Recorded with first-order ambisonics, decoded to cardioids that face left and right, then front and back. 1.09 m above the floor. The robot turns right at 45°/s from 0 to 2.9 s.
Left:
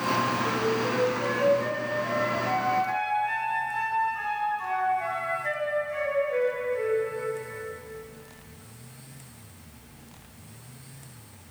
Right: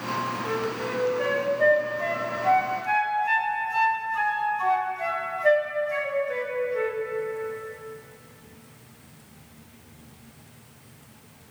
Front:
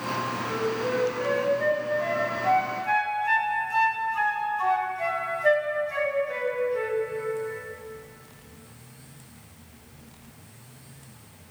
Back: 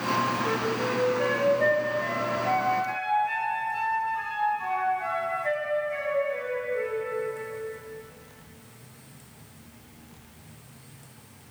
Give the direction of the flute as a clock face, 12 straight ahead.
5 o'clock.